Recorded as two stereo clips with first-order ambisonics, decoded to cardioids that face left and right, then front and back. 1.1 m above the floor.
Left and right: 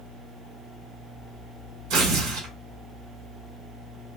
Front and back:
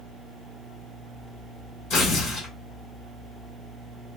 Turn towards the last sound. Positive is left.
turn(degrees=-55)